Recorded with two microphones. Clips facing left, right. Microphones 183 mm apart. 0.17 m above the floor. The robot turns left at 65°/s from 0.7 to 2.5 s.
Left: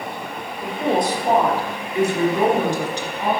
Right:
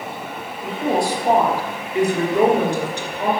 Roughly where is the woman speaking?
Ahead left.